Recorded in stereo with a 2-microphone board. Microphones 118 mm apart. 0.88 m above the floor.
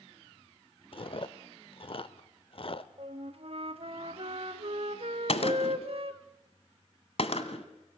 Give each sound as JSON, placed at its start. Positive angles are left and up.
{"t": 0.9, "sound": "chewing", "side_deg": 50, "distance_m": 0.7}
{"t": 3.0, "sound": "a flute", "side_deg": -55, "distance_m": 1.1}
{"t": 5.3, "sound": "a gunshot", "side_deg": 60, "distance_m": 1.4}